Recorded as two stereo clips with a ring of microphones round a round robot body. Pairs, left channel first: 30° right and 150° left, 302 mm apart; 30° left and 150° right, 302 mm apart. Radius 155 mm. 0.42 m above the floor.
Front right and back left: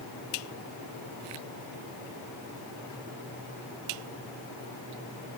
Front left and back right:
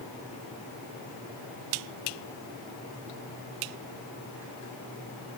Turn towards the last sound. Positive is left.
No sound to turn to.